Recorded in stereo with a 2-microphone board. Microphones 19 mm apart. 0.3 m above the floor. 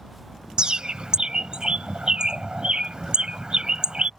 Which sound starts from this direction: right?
A bird, at 0.6 s.